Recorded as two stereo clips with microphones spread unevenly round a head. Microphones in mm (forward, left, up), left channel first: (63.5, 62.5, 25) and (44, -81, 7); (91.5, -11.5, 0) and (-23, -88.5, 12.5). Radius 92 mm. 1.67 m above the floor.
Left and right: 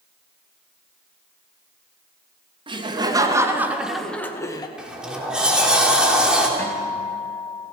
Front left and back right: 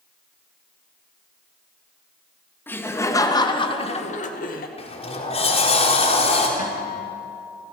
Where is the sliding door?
10° right, 4 m.